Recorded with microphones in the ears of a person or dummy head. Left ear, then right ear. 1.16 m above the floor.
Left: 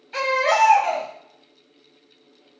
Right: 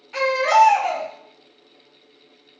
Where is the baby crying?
5° left (ahead or behind), 0.9 m.